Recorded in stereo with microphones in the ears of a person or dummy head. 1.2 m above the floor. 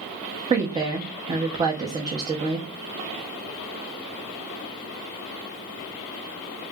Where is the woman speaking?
25° right (ahead or behind), 0.7 m.